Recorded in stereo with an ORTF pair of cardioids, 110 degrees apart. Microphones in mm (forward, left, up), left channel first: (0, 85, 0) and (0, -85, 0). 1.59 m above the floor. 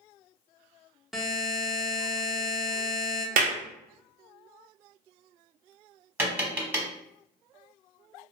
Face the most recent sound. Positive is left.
turn(degrees=-10)